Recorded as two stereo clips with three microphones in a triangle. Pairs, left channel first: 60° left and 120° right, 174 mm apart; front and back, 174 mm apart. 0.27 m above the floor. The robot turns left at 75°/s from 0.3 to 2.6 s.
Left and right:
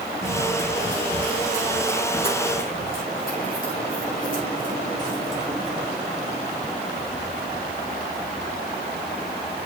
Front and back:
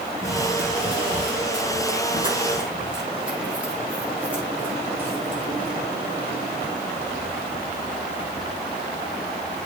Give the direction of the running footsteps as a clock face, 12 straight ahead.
4 o'clock.